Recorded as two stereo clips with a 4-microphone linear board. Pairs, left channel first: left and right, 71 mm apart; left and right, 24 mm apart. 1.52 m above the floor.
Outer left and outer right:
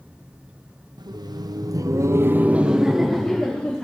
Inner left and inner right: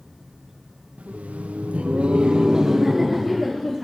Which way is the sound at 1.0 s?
80° right.